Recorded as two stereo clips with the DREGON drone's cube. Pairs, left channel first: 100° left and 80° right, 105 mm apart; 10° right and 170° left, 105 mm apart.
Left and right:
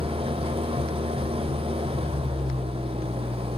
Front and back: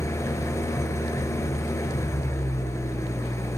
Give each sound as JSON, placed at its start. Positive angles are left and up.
{"t": 0.0, "sound": "an engine running", "azimuth_deg": -70, "distance_m": 1.3}